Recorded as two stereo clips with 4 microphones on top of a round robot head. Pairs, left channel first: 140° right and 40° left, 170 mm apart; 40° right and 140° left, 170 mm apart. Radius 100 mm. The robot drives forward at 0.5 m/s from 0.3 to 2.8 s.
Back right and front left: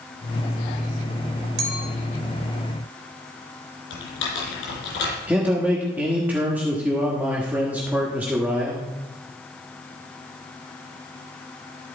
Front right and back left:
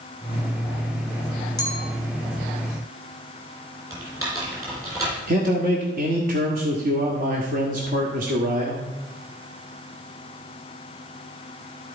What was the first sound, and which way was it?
A clink, 30° left.